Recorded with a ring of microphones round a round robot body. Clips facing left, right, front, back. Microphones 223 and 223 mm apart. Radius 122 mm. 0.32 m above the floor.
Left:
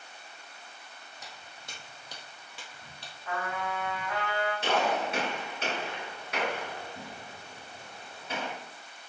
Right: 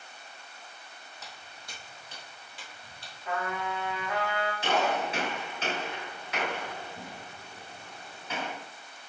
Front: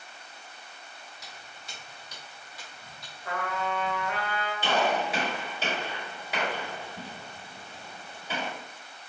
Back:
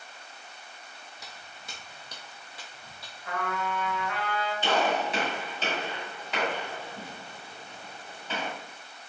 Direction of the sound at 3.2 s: 25° right.